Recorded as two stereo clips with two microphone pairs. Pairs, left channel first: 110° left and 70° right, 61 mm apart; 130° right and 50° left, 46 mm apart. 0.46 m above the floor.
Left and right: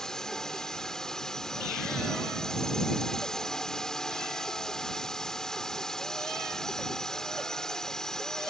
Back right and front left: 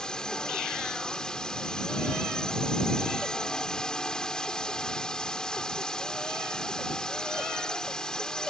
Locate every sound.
0.0 s a drone: straight behind